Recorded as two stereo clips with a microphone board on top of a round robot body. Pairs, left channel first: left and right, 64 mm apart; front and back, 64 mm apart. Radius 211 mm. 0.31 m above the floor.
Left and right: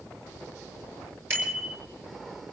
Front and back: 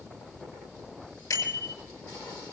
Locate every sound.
1.3 s a bicycle bell: 35° right, 7.5 m